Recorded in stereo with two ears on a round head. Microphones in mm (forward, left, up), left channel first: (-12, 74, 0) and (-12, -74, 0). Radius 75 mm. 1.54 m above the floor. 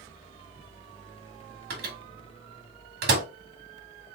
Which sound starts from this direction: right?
A microwave, at 1.7 s.